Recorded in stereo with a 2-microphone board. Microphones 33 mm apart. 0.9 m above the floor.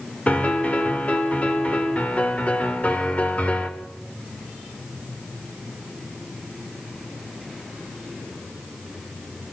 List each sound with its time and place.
0.3 s a piano: 40° left (ahead or behind), 2.0 m